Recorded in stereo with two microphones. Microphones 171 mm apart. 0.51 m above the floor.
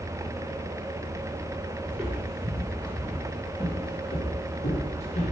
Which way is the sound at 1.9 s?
15° right (ahead or behind).